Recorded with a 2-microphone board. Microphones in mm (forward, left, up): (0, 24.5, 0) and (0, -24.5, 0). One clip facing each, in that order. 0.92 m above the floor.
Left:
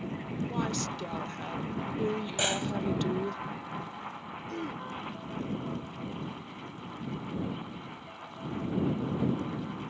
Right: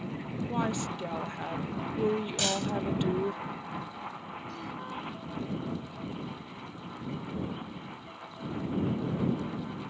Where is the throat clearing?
45° left (ahead or behind).